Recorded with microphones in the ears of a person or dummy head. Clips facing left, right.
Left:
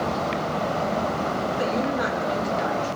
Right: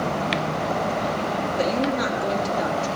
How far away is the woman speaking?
About 4 m.